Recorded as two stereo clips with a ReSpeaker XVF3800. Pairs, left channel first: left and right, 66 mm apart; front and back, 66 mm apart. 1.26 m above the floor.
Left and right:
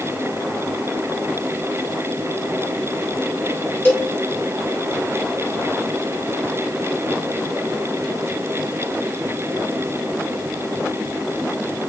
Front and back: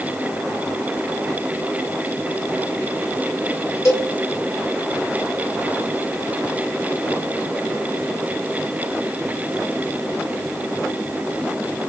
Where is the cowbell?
30° left, 1.8 m.